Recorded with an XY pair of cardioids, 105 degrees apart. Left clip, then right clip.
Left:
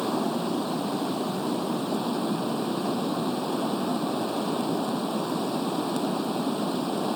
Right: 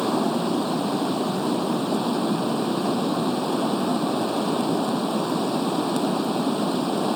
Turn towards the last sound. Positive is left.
turn(degrees=-30)